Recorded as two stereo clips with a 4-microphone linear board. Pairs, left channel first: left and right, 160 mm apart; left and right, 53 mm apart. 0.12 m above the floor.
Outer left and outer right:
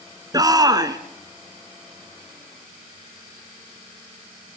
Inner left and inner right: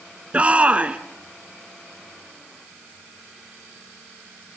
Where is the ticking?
I don't hear ticking.